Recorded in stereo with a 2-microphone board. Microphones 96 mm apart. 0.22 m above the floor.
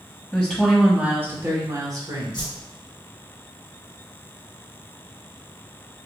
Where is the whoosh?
50° left (ahead or behind), 2 m.